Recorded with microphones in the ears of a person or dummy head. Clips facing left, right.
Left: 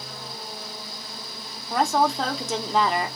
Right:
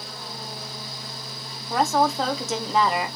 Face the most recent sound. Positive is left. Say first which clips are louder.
# right 1 dB
turn(degrees=0)  # may be behind; listen again after turning